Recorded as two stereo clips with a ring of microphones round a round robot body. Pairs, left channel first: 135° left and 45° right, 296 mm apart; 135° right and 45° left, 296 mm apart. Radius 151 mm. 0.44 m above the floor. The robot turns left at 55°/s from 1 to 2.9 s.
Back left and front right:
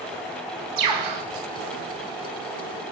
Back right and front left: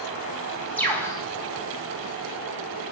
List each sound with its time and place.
0.8 s a bird: 50° right, 3 m; by 1.2 s 65° right, 3 m